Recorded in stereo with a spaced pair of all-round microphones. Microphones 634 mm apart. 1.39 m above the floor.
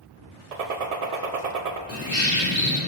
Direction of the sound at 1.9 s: 20° right (ahead or behind).